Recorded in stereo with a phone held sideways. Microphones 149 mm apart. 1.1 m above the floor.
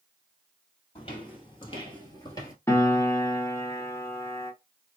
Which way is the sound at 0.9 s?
40° left (ahead or behind).